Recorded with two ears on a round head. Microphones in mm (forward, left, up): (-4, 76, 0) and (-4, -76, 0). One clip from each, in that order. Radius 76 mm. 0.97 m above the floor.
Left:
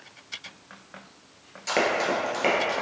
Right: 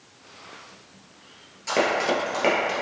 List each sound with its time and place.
1.7 s running footsteps: 20° left (ahead or behind), 0.9 m; by 2.7 s centre (ahead or behind), 1.2 m